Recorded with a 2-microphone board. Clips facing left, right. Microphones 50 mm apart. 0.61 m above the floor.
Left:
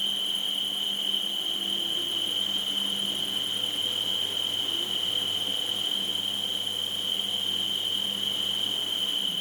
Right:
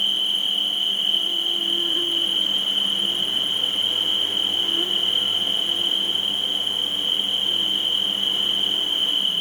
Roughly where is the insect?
Right.